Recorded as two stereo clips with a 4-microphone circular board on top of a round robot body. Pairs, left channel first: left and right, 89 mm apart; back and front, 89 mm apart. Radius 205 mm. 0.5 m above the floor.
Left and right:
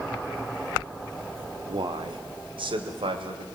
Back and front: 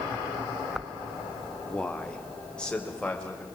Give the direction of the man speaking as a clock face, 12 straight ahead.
3 o'clock.